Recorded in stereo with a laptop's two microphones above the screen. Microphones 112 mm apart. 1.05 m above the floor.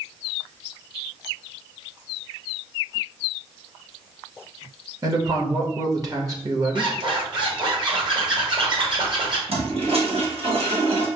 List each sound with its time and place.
5.0 s a man speaking: 35° right (ahead or behind), 1.3 m
6.8 s a zipper: 45° right (ahead or behind), 1.7 m
9.5 s a toilet flushing: 65° right (ahead or behind), 1.4 m